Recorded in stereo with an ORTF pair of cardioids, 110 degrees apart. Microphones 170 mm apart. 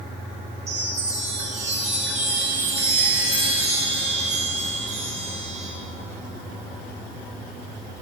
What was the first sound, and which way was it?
A chime, 45° right.